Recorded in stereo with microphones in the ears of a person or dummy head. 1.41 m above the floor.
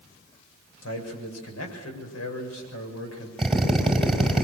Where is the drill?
Centre (ahead or behind), 4.5 m.